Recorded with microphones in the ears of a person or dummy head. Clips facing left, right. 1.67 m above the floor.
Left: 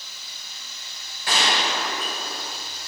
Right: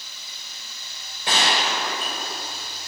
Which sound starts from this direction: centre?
A gunshot, at 1.3 s.